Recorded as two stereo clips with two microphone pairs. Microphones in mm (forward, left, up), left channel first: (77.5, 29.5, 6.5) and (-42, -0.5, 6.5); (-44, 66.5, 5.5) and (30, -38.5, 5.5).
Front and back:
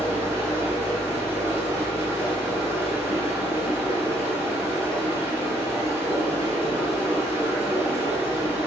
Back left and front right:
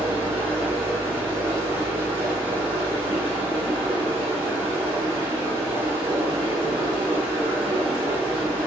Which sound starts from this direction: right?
Running water, at 0.0 s.